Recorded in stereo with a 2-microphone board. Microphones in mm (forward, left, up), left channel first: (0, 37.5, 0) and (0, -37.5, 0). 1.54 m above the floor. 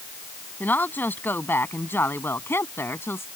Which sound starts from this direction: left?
A woman speaking, at 0.6 s.